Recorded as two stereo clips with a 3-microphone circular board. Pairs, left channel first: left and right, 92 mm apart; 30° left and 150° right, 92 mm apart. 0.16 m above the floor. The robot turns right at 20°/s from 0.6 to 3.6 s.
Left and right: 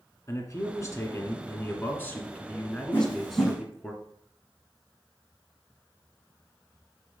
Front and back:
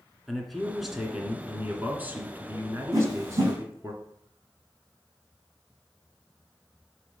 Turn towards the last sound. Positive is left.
turn(degrees=170)